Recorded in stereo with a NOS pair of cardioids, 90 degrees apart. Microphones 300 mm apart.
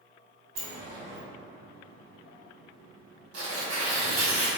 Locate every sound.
0.6 s a sliding door: 55° right, 1.8 m
3.3 s tearing paper: 55° right, 1.2 m